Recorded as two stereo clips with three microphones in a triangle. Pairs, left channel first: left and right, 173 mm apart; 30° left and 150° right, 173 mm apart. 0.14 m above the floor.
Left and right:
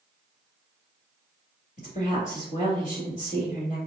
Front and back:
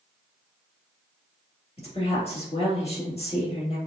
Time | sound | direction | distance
1.8 | a woman speaking | 70° left | 1.9 m